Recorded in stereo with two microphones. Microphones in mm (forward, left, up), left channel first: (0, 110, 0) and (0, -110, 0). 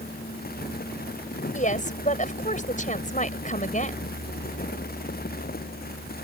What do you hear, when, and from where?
1.5 s a woman speaking: 35° left (ahead or behind)